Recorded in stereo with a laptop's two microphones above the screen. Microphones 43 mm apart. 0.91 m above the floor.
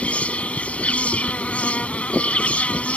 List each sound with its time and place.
0.0 s an insect: 30° left (ahead or behind)